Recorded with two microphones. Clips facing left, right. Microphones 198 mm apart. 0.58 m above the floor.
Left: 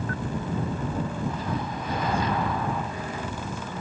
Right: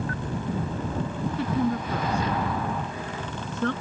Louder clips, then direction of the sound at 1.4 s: Right 6 dB; 80° right.